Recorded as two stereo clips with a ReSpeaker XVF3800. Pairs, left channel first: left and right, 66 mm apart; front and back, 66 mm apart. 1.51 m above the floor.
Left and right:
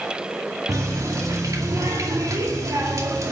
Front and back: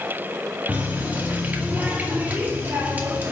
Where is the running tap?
115° right, 2 m.